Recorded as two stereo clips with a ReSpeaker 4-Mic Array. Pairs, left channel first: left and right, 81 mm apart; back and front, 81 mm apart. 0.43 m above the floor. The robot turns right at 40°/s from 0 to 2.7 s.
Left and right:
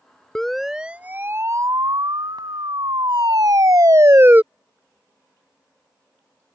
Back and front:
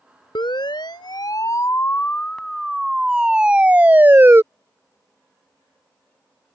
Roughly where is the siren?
Behind.